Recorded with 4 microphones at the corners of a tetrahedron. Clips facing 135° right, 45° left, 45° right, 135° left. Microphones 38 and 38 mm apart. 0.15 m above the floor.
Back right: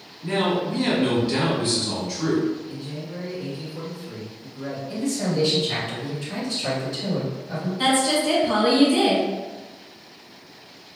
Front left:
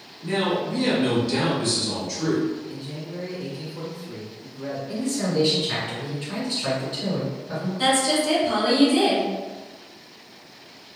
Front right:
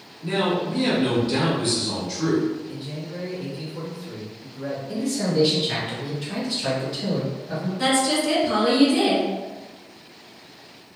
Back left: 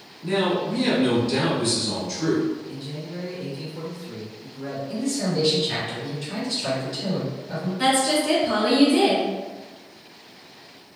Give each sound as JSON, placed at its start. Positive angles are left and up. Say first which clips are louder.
{"t": 0.2, "sound": "a man speaking", "louder": "back right 1 dB, even", "azimuth_deg": -75, "distance_m": 1.5}
{"t": 2.7, "sound": "a man speaking", "louder": "back right 1 dB, front right 1 dB", "azimuth_deg": -50, "distance_m": 1.7}
{"t": 4.9, "sound": "a man speaking", "louder": "even, front right 1 dB", "azimuth_deg": 25, "distance_m": 1.7}
{"t": 7.8, "sound": "a woman speaking", "louder": "back right 1 dB, back left 1 dB", "azimuth_deg": -175, "distance_m": 1.1}